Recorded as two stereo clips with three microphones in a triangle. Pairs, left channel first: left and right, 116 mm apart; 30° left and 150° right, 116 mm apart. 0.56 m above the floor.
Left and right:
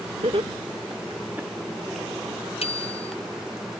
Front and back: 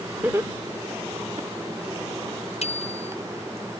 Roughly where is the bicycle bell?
Ahead left.